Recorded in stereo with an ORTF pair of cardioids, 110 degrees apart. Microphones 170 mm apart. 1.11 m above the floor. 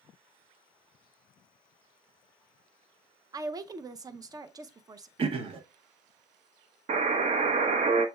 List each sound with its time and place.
3.3 s a woman speaking: 20° right, 0.6 m
5.2 s throat clearing: 35° right, 0.7 m
6.9 s a buzzer: 40° right, 0.8 m